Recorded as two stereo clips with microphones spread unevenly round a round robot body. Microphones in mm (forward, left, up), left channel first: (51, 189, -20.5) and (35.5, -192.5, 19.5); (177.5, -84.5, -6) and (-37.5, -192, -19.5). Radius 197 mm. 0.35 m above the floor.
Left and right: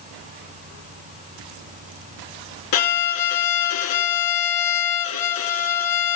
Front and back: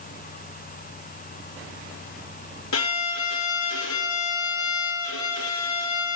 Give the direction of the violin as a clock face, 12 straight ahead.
10 o'clock.